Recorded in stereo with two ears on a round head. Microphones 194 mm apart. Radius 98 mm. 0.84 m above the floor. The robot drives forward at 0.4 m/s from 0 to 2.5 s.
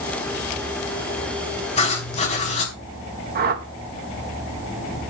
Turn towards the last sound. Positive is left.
turn(degrees=-45)  # may be behind; listen again after turning